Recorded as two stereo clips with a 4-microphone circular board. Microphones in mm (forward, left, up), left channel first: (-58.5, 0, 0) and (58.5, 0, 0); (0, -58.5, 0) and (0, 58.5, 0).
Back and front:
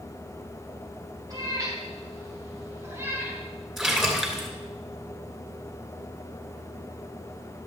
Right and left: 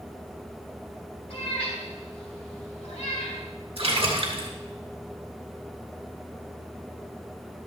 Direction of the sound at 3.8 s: 85° left.